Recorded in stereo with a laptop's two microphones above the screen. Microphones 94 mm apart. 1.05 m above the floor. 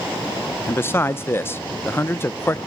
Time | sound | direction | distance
0.7 | a man speaking | 25° left (ahead or behind) | 0.8 m